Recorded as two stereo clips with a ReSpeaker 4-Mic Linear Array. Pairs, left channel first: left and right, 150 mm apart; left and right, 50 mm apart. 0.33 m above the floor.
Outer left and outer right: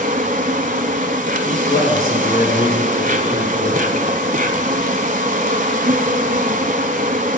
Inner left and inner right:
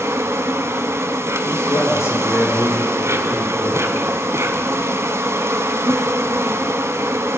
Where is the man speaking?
75° left (ahead or behind), 6 m.